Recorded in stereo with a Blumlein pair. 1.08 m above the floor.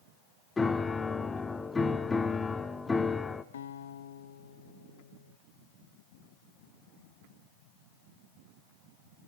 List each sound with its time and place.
0.6 s a piano: 10° left, 1.4 m
3.5 s a guitar: 65° left, 1.3 m